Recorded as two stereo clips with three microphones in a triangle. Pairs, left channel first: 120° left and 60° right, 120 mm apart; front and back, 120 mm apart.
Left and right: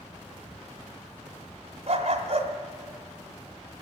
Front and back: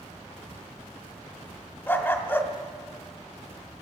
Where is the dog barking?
70° right, 1.5 m.